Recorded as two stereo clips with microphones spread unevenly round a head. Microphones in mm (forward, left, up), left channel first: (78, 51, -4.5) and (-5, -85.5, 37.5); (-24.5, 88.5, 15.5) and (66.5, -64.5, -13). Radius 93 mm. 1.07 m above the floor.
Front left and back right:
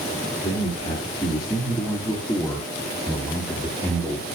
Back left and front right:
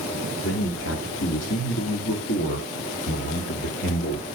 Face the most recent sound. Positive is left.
turn(degrees=170)